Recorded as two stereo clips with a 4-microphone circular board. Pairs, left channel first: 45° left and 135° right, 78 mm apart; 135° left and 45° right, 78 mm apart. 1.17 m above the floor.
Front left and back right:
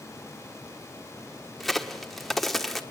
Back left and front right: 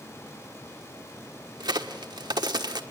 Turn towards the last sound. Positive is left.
turn(degrees=-45)